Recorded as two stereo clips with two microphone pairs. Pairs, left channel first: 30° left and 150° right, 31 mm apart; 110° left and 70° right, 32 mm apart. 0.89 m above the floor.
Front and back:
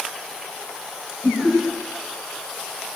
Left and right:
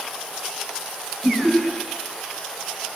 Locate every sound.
1.2 s laughter: straight ahead, 4.5 m